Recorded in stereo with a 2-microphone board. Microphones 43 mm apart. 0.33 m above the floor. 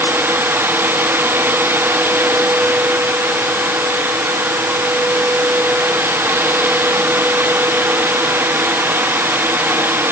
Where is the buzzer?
No buzzer in this recording.